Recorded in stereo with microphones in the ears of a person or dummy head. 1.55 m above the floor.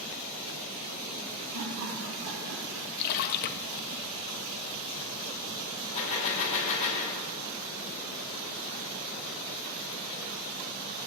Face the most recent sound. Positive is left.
turn(degrees=30)  # may be behind; listen again after turning